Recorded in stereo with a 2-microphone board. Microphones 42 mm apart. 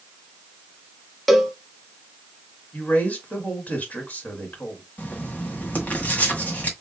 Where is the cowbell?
Centre (ahead or behind), 1.0 m.